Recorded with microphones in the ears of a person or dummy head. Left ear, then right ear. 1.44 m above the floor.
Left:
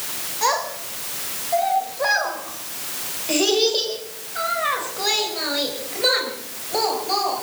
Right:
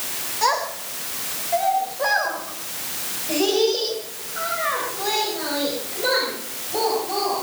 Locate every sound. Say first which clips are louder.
0.4 s a child speaking: even; 5° right (ahead or behind), 4 m; by 7.4 s 45° left (ahead or behind), 5.5 m